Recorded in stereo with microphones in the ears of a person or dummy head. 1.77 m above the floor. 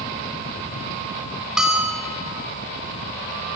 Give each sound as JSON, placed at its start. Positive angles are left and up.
{"t": 1.6, "sound": "a bell", "side_deg": -5, "distance_m": 4.5}